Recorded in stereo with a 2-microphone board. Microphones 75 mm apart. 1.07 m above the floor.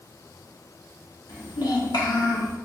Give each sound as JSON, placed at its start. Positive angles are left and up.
{"t": 1.3, "sound": "a child speaking", "side_deg": 70, "distance_m": 1.2}